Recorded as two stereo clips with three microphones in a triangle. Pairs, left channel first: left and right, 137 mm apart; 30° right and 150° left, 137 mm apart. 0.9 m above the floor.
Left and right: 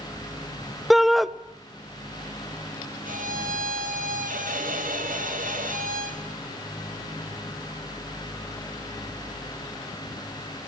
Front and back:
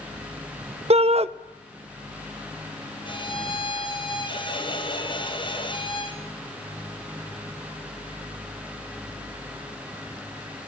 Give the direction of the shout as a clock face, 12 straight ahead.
6 o'clock.